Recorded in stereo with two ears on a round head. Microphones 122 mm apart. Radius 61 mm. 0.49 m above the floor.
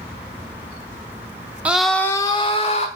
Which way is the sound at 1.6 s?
10° right (ahead or behind).